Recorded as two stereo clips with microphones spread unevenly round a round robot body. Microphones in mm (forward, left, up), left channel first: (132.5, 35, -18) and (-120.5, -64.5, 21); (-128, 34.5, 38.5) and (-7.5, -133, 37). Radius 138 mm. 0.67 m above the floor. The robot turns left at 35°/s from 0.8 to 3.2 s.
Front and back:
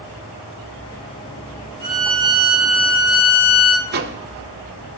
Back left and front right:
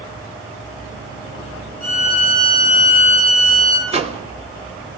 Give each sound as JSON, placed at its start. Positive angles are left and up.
{"t": 1.8, "sound": "a violin", "azimuth_deg": 130, "distance_m": 5.5}
{"t": 3.9, "sound": "a microwave", "azimuth_deg": -105, "distance_m": 0.9}